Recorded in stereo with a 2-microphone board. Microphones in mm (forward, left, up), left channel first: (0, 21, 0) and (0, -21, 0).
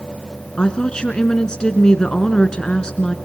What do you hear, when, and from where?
0.6 s a woman speaking: 20° left (ahead or behind), 1.6 m